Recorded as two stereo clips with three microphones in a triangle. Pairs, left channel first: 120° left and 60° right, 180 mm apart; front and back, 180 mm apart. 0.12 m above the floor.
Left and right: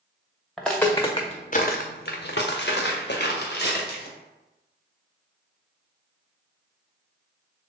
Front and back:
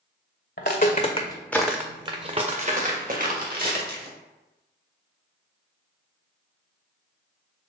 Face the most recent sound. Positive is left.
turn(degrees=150)